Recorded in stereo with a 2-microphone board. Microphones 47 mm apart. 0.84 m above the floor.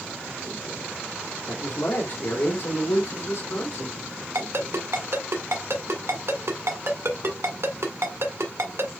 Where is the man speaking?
65° left (ahead or behind), 2 m.